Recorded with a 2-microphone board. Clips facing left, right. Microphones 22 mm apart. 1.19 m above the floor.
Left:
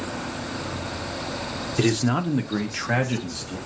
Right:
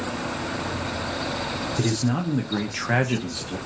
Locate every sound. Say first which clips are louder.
1.8 s a man speaking: left 4 dB; 35° left (ahead or behind), 0.8 m; by 3.6 s 30° right (ahead or behind), 1.0 m